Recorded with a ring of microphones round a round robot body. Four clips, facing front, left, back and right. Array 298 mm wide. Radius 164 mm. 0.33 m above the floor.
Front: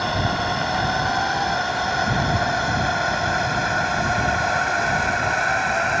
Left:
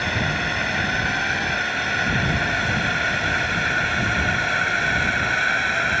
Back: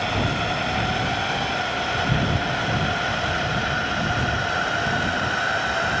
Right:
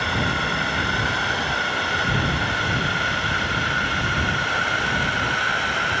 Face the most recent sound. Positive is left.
turn(degrees=20)